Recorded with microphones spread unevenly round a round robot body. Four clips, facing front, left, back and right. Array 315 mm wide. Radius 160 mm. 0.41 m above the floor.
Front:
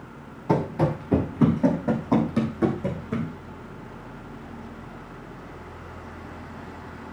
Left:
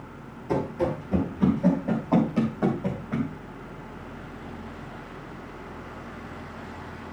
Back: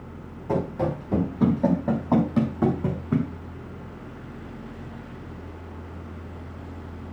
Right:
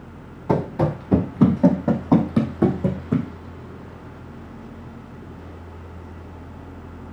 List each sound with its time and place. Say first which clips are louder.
0.5 s running footsteps: right 4 dB, front 2 dB; 50° right, 1.4 m; by 3.3 s 110° right, 1.4 m